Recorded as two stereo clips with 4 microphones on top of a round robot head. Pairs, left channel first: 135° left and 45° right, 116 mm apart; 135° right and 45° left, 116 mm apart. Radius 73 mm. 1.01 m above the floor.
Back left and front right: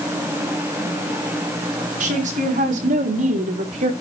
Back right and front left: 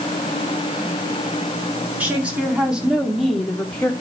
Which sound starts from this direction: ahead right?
A woman speaking, at 2.0 s.